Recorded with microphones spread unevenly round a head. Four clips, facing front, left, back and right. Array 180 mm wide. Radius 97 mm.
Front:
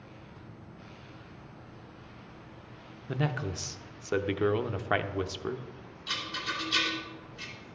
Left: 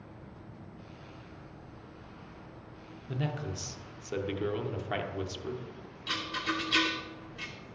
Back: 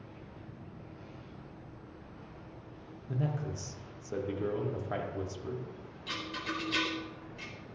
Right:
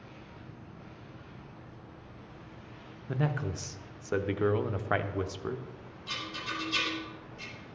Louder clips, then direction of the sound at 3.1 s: Right 3 dB, front 3 dB; 35° right.